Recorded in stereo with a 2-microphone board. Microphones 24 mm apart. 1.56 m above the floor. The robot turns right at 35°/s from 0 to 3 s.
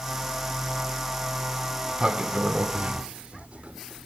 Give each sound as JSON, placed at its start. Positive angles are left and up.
{"t": 1.8, "sound": "a sliding door", "azimuth_deg": -160, "distance_m": 2.0}